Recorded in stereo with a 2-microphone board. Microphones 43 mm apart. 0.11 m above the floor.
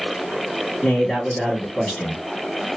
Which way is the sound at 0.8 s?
10° left (ahead or behind).